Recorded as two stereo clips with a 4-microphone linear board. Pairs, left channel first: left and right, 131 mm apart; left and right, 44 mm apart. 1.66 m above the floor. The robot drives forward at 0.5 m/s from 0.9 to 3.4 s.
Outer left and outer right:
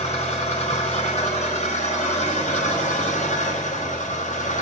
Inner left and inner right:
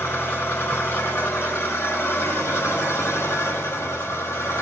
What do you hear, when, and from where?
0.0 s an engine running: 60° left (ahead or behind), 6 m; by 4.6 s 70° left (ahead or behind), 5.5 m